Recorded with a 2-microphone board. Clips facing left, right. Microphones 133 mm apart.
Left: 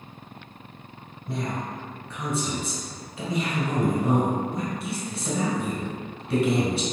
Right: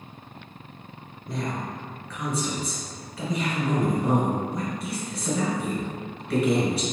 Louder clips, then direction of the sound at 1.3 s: Even; 25° left (ahead or behind).